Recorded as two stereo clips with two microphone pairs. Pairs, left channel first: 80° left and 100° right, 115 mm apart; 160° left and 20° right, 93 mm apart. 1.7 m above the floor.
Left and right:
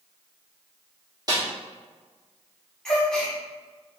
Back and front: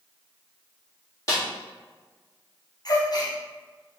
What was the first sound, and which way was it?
A snare drum, 155° right.